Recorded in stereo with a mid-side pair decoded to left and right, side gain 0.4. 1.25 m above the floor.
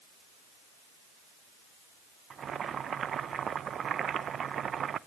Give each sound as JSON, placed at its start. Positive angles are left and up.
{"t": 2.3, "sound": "boiling", "azimuth_deg": -55, "distance_m": 0.8}